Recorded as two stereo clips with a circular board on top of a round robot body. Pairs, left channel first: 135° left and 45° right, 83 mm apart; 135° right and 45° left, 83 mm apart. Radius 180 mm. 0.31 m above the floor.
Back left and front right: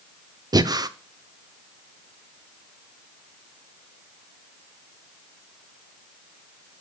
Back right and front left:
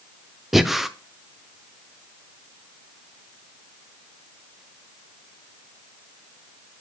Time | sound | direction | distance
0.5 | breathing | 45° right | 0.7 m